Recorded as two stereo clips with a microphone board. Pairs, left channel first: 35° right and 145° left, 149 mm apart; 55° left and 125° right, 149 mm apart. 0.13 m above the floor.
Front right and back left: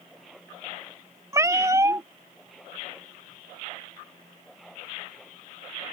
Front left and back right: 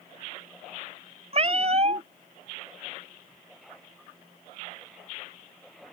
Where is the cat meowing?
150° right.